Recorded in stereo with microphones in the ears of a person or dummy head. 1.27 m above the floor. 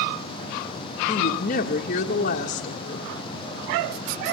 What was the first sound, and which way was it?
A woman speaking, 45° left (ahead or behind).